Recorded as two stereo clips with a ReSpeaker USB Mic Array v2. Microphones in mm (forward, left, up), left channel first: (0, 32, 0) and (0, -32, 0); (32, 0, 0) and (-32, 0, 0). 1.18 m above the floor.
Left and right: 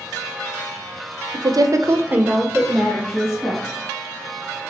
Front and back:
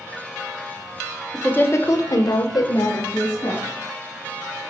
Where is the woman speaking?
75° right, 0.6 m; by 3.6 s 20° left, 1.1 m.